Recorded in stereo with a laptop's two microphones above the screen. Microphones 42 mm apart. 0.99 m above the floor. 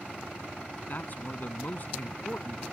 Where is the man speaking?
45° left (ahead or behind); by 2.6 s 40° left (ahead or behind).